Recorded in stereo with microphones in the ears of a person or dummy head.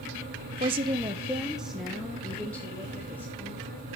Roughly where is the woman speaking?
Right.